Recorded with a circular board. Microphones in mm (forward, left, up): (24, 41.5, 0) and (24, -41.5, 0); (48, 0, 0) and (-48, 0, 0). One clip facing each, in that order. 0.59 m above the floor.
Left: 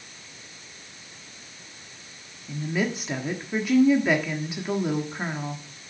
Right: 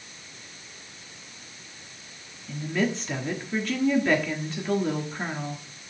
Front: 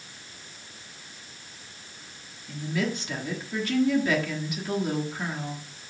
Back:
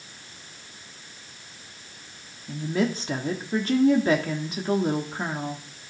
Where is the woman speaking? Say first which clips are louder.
Even, back 4 dB; 165° left, 1.3 m.